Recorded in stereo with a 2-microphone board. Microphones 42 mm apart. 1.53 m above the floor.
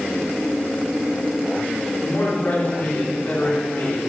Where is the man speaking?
45° left (ahead or behind), 5 m.